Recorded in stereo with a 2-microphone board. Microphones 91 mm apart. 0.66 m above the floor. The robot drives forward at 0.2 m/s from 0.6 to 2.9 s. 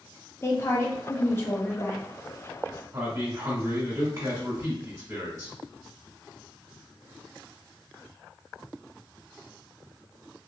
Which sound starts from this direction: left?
A woman speaking, at 0.4 s.